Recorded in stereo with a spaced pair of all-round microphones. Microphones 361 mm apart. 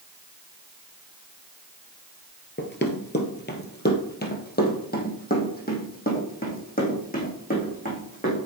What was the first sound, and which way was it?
Running footsteps, 30° left (ahead or behind).